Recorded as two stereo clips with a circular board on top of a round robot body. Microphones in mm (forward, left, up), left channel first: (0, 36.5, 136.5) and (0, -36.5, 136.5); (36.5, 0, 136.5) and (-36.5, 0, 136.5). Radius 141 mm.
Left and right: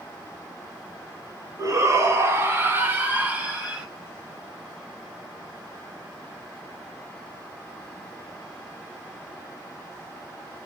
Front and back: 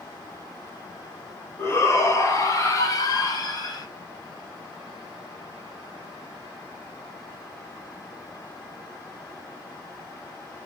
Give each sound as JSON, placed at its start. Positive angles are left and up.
{"t": 1.6, "sound": "a shout", "azimuth_deg": -50, "distance_m": 2.0}